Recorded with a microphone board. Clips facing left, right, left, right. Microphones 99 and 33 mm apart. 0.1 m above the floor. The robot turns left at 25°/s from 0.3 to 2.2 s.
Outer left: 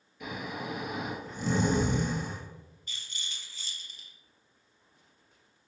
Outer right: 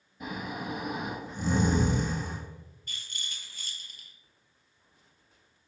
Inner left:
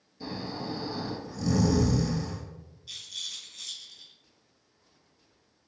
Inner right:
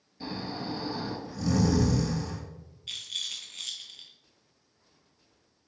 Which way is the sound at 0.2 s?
145° right.